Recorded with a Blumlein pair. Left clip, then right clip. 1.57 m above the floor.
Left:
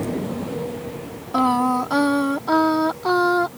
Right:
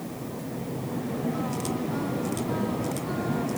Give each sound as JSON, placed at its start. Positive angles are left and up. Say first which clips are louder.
{"t": 1.3, "sound": "singing", "louder": "left 12 dB", "azimuth_deg": 40}